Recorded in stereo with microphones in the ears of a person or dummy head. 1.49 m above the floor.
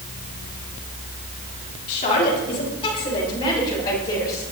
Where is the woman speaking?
40° left (ahead or behind), 3.5 m; by 4.4 s 20° left (ahead or behind), 7 m.